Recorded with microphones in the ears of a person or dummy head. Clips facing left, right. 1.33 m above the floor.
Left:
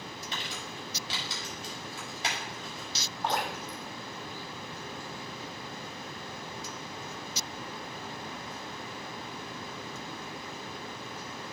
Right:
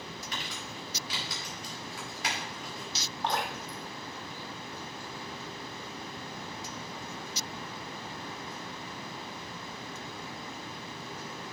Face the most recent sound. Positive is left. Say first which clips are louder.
# left 1 dB
turn(degrees=5)  # may be behind; listen again after turning